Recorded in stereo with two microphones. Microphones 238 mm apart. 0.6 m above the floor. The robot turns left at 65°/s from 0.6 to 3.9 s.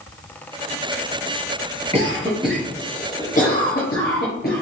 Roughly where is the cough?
Right.